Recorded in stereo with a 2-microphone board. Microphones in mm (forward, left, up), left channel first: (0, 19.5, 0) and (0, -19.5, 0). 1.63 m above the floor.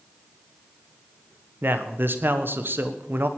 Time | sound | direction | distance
1.6 | a man speaking | 60° right (ahead or behind) | 1.5 m